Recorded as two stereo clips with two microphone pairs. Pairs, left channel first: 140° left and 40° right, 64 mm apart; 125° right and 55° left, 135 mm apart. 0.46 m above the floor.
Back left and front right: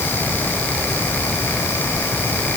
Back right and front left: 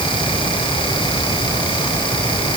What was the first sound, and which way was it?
Only background noise.